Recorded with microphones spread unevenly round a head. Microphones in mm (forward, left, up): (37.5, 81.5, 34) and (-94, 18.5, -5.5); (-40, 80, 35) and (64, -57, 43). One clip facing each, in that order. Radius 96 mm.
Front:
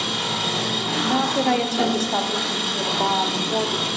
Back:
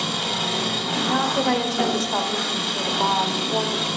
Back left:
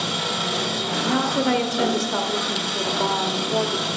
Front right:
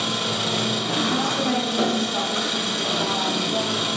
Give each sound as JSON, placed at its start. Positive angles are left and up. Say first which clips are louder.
{"t": 0.0, "sound": "an engine running", "louder": "even, front right 1 dB", "azimuth_deg": -35, "distance_m": 3.5}
{"t": 1.0, "sound": "a woman speaking", "louder": "front 1 dB, back left 5 dB", "azimuth_deg": 100, "distance_m": 0.7}